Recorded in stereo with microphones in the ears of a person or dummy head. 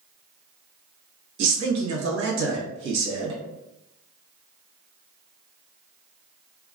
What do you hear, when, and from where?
1.4 s a man speaking: 65° right (ahead or behind), 1.3 m